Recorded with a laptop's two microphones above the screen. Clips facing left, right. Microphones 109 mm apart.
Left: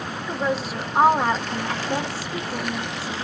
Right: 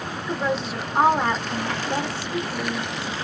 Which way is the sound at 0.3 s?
5° left (ahead or behind).